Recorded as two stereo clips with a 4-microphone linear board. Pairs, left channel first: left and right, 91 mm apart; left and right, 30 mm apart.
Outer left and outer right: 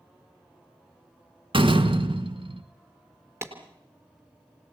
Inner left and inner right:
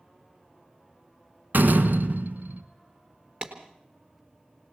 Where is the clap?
30° right (ahead or behind), 4 m.